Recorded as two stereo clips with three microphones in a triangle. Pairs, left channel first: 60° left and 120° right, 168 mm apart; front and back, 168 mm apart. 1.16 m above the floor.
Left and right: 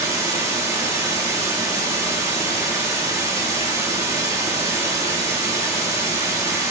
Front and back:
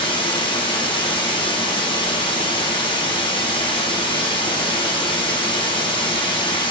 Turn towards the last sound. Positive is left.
turn(degrees=-55)